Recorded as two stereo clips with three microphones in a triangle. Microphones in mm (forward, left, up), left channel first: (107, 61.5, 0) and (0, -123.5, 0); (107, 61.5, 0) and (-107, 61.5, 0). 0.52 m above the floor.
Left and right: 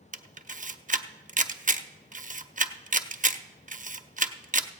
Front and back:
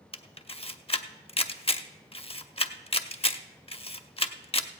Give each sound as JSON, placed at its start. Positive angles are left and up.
{"t": 0.1, "sound": "a camera shutter", "azimuth_deg": -60, "distance_m": 0.5}